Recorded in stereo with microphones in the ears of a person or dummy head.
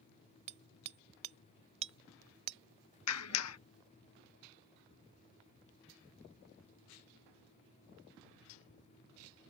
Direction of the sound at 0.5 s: 40° right (ahead or behind).